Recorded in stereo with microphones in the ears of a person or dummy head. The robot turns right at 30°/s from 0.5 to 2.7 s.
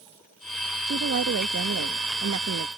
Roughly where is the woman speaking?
Behind right.